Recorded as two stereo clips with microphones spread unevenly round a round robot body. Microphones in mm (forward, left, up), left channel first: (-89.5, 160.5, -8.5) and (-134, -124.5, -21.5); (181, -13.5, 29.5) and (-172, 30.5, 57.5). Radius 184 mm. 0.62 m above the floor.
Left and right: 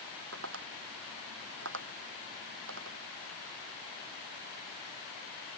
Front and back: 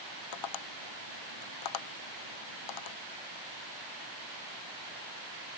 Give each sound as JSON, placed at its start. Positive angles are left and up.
{"t": 0.3, "sound": "tapping", "azimuth_deg": -40}